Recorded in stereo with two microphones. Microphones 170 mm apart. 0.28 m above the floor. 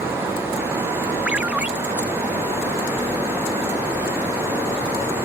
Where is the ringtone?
5° right (ahead or behind).